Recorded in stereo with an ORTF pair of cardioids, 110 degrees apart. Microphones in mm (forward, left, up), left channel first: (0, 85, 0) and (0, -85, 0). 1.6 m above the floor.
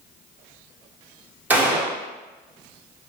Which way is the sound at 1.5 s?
10° right.